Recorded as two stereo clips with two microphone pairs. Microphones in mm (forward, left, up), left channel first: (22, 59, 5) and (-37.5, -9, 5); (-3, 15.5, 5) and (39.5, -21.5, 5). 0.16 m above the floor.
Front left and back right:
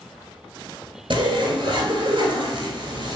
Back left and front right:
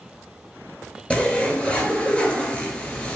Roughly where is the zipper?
Behind right.